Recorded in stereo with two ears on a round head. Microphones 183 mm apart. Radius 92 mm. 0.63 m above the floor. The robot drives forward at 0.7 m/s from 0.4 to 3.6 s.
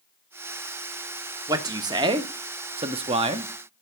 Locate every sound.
1.5 s a man speaking: 15° right (ahead or behind), 1.3 m; by 3.5 s 25° right (ahead or behind), 0.9 m